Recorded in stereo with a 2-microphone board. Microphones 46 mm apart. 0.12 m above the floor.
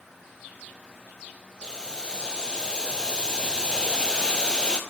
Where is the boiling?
20° left (ahead or behind), 1.0 m.